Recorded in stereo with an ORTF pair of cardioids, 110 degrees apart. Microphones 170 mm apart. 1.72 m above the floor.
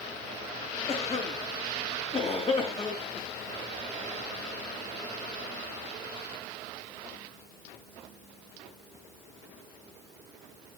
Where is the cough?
35° left, 3 m.